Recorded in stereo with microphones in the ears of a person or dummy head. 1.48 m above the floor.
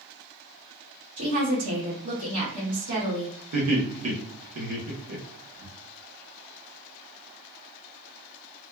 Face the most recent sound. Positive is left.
turn(degrees=-85)